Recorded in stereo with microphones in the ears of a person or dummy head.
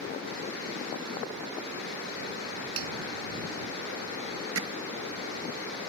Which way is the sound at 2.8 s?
75° right (ahead or behind).